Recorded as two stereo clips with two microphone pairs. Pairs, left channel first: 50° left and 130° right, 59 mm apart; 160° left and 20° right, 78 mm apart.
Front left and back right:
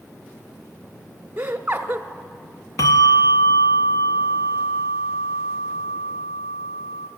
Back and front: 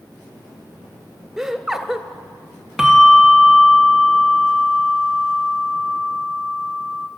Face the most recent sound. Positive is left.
turn(degrees=65)